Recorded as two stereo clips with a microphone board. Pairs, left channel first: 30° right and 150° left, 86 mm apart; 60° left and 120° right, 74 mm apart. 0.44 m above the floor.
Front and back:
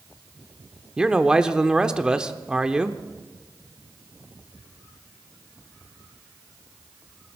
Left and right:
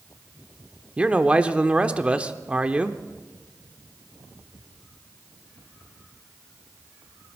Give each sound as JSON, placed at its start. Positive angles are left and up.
{"t": 1.0, "sound": "a man speaking", "azimuth_deg": -150, "distance_m": 0.8}